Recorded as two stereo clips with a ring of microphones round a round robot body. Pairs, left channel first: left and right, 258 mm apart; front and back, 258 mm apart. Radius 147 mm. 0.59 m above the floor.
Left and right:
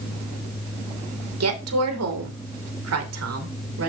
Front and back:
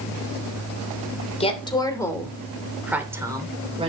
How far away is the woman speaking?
About 3 m.